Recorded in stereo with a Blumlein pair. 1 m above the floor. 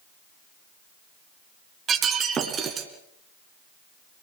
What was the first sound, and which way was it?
Breaking glass, 25° right.